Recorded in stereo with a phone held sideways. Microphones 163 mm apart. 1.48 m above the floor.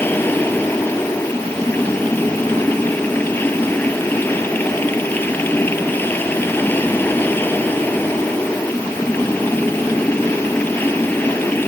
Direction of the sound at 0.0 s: 10° left (ahead or behind).